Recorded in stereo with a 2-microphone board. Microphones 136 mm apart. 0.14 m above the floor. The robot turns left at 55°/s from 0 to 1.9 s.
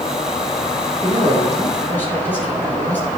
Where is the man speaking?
145° right, 3 m; by 3.1 s 165° left, 3 m.